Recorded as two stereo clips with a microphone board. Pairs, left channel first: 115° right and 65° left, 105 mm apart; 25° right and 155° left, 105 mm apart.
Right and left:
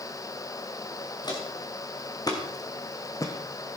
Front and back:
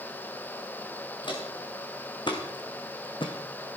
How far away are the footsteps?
About 3.5 m.